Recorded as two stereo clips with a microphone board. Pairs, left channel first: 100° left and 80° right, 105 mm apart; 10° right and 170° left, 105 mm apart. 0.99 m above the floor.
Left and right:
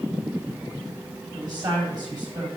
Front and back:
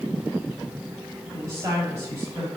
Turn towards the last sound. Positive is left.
turn(degrees=-125)